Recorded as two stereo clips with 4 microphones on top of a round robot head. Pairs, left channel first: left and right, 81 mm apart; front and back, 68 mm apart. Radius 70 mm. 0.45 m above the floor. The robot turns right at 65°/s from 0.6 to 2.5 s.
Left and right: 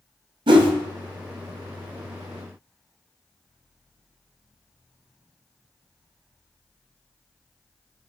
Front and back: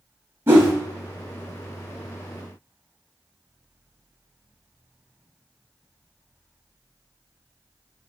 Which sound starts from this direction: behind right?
A whoosh, at 0.5 s.